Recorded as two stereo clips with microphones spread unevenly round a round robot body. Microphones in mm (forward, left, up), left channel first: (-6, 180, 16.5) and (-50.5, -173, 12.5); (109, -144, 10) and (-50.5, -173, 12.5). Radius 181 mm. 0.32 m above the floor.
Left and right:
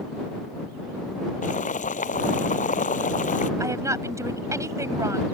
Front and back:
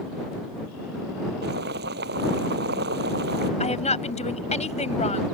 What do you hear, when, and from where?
1.4 s boiling: 150° left
3.6 s a woman speaking: 15° right